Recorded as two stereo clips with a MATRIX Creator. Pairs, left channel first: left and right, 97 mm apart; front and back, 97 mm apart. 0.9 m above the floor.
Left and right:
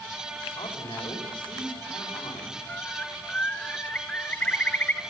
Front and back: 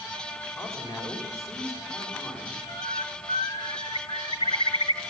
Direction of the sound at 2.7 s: 15° left.